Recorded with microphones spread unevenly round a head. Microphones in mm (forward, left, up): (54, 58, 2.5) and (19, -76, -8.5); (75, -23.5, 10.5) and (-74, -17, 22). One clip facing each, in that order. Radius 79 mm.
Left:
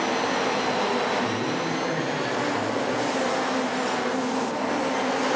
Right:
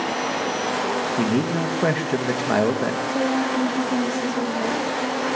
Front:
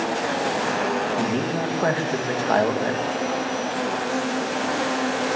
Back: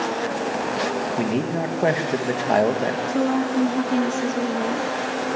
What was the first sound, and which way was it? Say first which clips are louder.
A man speaking: right 5 dB, back 1 dB; 115° right.